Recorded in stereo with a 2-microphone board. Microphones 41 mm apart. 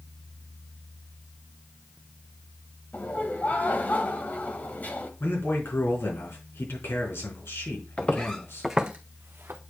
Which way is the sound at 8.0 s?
30° left (ahead or behind).